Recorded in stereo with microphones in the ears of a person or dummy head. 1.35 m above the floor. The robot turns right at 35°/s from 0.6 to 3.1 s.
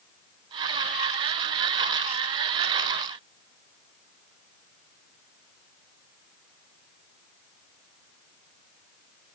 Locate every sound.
Only background noise.